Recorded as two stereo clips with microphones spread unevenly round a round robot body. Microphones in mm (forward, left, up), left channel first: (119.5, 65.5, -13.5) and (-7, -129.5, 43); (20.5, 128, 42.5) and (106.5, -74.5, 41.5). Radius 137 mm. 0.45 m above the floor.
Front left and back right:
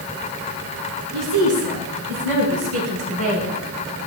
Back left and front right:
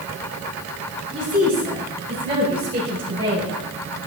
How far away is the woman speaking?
About 5.5 m.